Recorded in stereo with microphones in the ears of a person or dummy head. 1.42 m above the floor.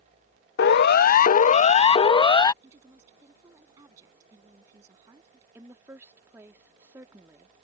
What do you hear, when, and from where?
0.6 s a siren: 50° left (ahead or behind); by 2.5 s 15° left (ahead or behind)
2.6 s a woman speaking: 10° right (ahead or behind)
5.5 s a woman speaking: 20° right (ahead or behind)